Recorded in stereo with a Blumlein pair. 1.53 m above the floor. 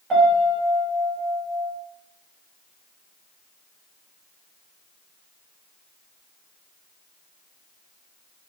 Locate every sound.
0.1 s a piano: 25° right, 1.5 m